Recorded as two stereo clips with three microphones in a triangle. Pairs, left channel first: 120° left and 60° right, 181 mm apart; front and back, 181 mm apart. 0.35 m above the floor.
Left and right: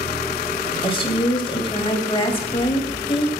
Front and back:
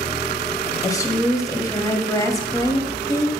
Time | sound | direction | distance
0.8 | a woman speaking | 65° left | 1.7 m